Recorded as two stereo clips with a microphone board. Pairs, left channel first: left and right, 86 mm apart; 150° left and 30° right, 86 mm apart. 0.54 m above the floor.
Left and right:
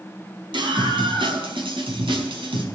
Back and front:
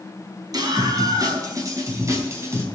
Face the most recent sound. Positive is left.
turn(degrees=-90)